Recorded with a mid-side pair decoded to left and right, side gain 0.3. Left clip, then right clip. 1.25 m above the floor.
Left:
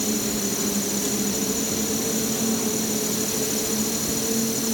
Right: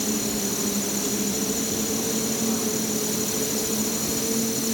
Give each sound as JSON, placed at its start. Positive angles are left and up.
{"t": 0.0, "sound": "an insect", "azimuth_deg": 0}